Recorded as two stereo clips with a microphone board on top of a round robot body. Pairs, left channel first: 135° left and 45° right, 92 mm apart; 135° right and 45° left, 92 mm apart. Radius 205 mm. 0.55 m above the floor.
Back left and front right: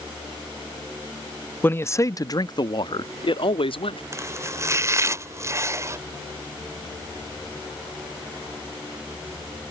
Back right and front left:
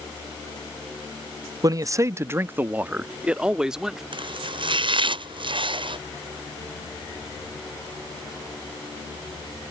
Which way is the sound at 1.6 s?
75° left.